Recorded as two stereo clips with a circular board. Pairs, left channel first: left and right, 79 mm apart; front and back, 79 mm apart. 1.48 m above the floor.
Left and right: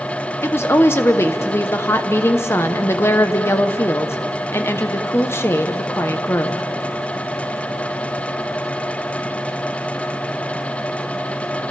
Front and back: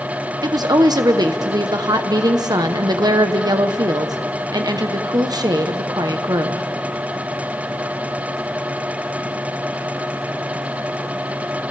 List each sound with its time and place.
0.4 s a woman speaking: 145° left, 1.0 m